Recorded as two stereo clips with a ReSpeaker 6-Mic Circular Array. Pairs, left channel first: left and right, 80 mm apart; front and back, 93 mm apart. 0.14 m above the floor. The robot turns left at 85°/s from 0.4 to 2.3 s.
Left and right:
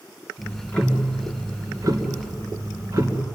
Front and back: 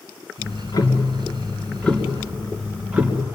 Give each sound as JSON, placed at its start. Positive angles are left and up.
{"t": 0.4, "sound": "ticking", "azimuth_deg": 50, "distance_m": 2.5}